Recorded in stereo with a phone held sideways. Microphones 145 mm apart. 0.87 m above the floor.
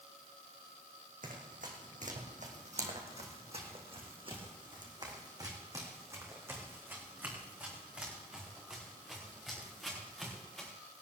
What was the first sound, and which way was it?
Running footsteps, 70° right (ahead or behind).